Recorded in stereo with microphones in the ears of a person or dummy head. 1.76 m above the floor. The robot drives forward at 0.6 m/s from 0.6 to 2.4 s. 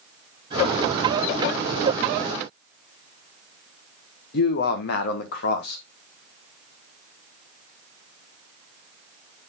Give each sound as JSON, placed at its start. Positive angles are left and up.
{"t": 4.3, "sound": "a man speaking", "side_deg": 60, "distance_m": 1.4}